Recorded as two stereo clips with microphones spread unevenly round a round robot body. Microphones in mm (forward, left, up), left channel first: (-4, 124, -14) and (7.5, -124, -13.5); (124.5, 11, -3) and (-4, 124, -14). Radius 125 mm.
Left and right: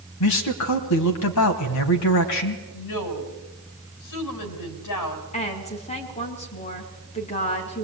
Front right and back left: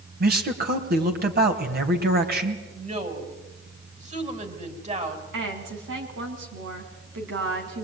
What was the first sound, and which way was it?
A man speaking, 115° left.